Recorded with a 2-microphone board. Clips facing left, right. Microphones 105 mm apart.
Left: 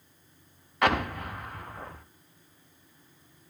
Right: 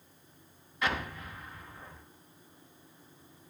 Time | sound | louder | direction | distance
0.8 | an explosion | left 8 dB | 65° left (ahead or behind) | 0.6 m